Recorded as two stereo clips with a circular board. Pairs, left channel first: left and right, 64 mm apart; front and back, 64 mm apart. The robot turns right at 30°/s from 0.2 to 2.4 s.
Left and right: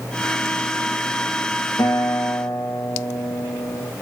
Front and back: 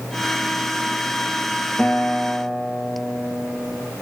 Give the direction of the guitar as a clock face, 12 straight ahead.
10 o'clock.